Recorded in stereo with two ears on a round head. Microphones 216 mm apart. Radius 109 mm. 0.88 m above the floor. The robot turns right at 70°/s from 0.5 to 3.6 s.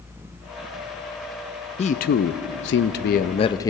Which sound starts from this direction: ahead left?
A man speaking, at 1.8 s.